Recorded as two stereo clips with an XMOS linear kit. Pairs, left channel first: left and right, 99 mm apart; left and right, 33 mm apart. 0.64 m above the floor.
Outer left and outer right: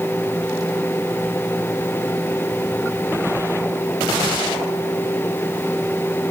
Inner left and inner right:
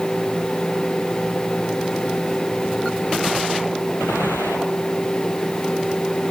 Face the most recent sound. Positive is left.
No sound to turn to.